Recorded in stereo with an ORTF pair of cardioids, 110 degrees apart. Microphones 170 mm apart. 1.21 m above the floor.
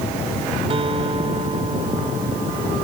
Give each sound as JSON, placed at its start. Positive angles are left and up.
{"t": 0.7, "sound": "a guitar", "azimuth_deg": -35}